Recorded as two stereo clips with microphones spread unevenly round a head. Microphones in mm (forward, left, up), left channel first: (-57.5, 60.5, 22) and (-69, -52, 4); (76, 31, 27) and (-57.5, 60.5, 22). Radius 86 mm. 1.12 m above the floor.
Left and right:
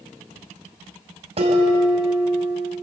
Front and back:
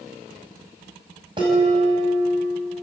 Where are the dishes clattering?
125° right, 5 m.